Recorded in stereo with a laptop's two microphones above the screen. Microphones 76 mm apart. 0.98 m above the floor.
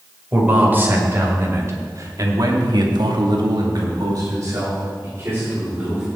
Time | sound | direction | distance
0.3 | a man speaking | 25° right (ahead or behind) | 4.5 m